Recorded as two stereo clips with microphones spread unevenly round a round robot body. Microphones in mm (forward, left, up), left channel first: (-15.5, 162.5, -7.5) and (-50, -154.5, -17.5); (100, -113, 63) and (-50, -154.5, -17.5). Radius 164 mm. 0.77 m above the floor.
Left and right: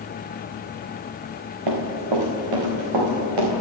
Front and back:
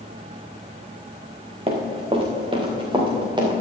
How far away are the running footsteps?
About 3 m.